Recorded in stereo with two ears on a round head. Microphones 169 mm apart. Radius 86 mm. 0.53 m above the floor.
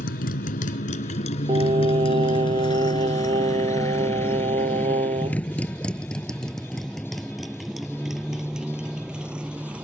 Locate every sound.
0.0 s a motorcycle: 50° left (ahead or behind); by 9.8 s 5° right (ahead or behind)
1.5 s singing: 30° right (ahead or behind)